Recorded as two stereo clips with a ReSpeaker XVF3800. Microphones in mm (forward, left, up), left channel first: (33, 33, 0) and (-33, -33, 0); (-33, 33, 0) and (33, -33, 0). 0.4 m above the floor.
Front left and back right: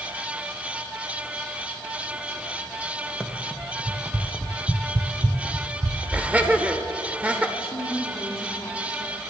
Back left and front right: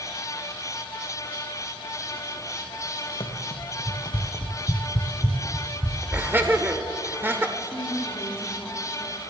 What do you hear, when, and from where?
3.2 s running footsteps: 140° left, 1.3 m; by 6.3 s 150° right, 1.5 m
6.1 s laughter: 80° right, 0.8 m
7.6 s a woman speaking: 80° left, 1.6 m